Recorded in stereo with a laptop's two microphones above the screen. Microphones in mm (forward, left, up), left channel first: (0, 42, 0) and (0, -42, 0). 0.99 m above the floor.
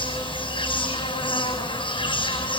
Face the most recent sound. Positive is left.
turn(degrees=85)